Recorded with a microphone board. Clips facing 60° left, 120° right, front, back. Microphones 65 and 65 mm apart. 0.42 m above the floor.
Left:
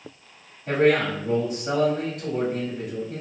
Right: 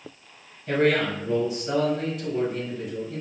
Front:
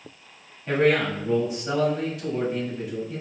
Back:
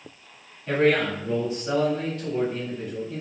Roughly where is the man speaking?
Left.